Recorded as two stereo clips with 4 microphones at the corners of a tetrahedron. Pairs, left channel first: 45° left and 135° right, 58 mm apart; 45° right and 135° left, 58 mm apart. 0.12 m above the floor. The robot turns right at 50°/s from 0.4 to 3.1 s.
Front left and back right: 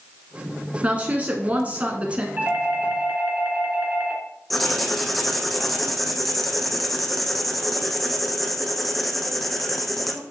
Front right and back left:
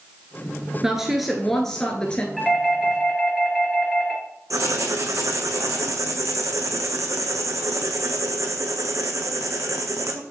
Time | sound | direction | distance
0.8 | a woman speaking | 160° right | 1.2 m
2.4 | a doorbell | 135° right | 2.5 m
4.5 | writing | 135° left | 1.1 m